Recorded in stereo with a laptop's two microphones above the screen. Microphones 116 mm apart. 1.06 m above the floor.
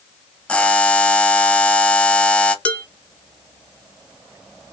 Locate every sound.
0.5 s a buzzer: 10° left (ahead or behind), 0.5 m
2.6 s dishes clattering: 10° left (ahead or behind), 1.3 m